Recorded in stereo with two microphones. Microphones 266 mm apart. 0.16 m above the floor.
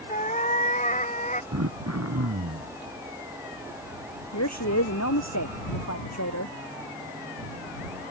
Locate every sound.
0.1 s a cat meowing: 30° left (ahead or behind)
1.5 s throat clearing: 80° right
4.3 s a woman speaking: 80° left